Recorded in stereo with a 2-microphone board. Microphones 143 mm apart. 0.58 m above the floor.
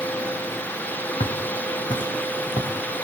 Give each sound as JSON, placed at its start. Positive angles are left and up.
{"t": 1.2, "sound": "footsteps", "side_deg": 50, "distance_m": 3.0}